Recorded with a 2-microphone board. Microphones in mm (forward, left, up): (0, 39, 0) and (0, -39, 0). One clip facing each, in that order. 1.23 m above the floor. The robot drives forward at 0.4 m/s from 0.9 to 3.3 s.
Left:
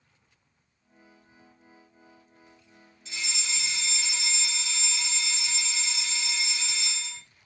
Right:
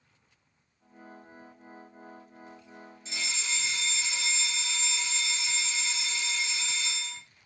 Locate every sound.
3.0 s a fire alarm: 30° right (ahead or behind), 1.3 m